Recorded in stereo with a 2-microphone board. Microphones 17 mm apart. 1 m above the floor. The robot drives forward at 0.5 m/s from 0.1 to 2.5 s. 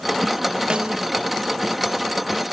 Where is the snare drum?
75° right (ahead or behind), 0.5 m; by 1.1 s 55° right (ahead or behind), 0.6 m.